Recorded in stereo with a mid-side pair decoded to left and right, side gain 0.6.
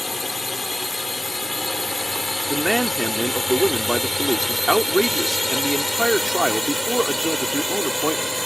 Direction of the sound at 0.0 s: 10° left.